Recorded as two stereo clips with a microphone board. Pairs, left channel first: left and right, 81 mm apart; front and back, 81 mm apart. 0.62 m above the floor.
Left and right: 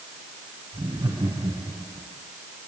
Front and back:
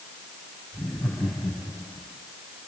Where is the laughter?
95° right, 4 m.